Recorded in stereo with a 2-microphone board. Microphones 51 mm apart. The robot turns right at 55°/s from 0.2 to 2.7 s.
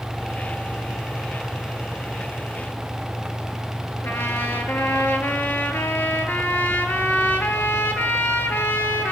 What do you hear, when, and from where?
4.0 s a trumpet: 45° left (ahead or behind), 0.7 m